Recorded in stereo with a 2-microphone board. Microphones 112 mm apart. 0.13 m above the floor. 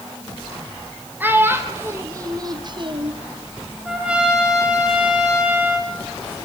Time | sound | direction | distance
1.2 | a child speaking | 15° right (ahead or behind) | 2.5 m
3.9 | a trumpet | 10° right (ahead or behind) | 4 m